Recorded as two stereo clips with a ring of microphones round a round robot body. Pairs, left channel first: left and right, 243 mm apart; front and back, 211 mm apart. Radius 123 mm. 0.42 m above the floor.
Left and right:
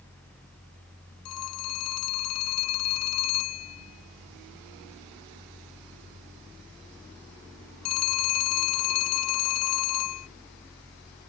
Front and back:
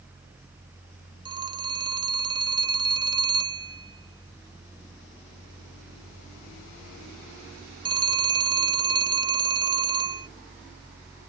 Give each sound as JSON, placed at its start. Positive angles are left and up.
{"t": 1.2, "sound": "a phone ringing", "azimuth_deg": 110}